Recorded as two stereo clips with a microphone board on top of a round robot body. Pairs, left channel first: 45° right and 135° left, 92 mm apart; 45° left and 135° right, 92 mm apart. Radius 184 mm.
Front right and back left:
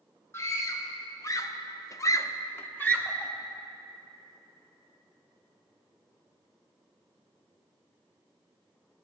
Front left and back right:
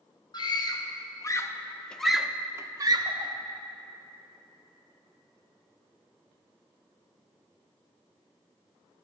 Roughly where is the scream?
Ahead.